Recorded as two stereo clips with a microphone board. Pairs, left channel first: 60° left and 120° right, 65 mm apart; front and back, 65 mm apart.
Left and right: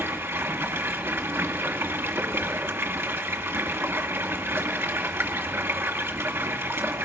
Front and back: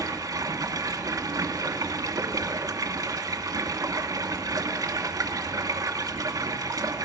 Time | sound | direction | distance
0.0 | running water | 170° right | 1.8 m